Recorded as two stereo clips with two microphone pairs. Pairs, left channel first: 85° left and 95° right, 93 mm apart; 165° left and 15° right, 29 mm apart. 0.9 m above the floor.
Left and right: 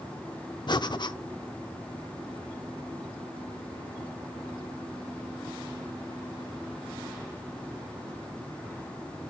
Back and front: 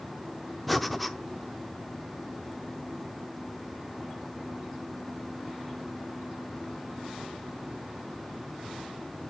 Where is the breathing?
75° left, 0.6 m.